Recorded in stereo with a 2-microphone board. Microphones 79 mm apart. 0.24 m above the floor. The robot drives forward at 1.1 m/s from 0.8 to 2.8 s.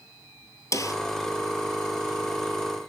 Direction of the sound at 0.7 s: 40° left (ahead or behind).